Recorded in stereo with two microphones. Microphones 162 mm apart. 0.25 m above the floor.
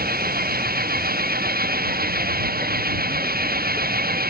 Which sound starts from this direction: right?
An engine running, at 0.0 s.